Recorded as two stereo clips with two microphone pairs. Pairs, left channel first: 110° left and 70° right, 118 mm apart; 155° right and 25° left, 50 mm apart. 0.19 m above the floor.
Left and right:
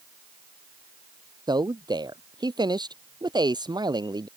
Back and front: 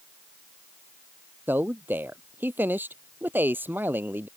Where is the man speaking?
20° right.